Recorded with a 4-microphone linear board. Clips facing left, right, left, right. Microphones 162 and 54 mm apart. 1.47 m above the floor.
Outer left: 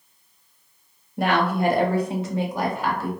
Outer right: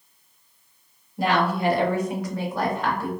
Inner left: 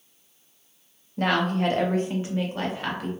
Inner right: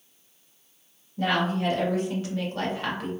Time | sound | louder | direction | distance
1.2 | a woman speaking | outer left 1 dB, inner left 2 dB | 70° left (ahead or behind) | 0.7 m